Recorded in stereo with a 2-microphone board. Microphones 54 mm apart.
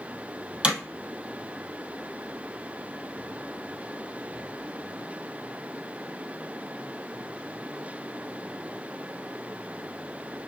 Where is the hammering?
20° right (ahead or behind), 1.9 m.